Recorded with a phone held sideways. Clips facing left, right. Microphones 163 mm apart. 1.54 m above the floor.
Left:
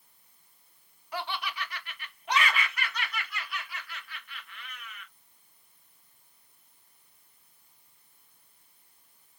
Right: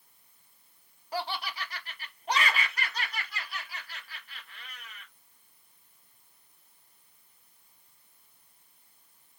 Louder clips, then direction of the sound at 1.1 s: Right 1 dB; 35° right (ahead or behind).